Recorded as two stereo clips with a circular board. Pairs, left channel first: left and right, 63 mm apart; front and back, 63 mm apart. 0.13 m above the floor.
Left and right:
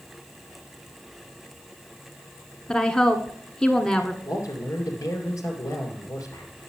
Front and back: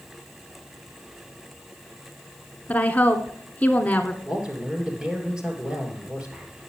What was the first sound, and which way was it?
A woman speaking, 25° left.